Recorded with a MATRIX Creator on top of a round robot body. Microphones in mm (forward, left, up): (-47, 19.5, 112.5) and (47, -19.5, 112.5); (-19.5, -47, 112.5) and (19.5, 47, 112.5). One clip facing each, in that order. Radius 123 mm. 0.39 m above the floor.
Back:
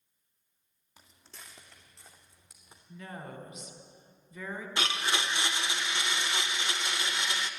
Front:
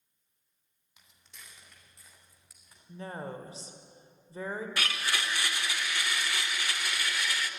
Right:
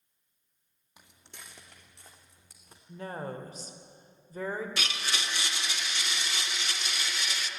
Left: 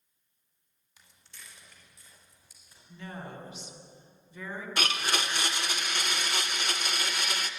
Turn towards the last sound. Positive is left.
turn(degrees=95)